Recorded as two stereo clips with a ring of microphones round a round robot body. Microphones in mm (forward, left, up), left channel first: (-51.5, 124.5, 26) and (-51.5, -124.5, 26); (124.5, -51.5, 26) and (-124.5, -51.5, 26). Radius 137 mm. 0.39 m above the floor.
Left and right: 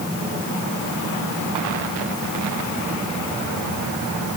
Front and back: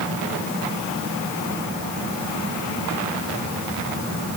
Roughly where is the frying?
No frying in this recording.